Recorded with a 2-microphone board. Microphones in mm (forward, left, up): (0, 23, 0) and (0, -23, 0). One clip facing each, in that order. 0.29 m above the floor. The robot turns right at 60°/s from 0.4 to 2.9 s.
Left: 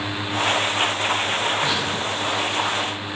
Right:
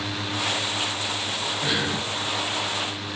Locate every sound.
1.6 s breathing: 5° right (ahead or behind), 2 m; by 2.0 s 30° right (ahead or behind), 2 m